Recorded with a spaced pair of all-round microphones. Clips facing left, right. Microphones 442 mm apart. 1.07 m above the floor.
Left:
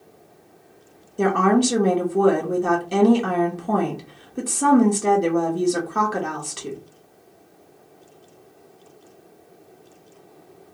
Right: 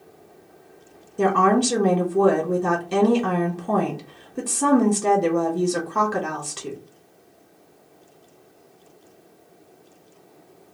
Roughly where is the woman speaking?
Centre.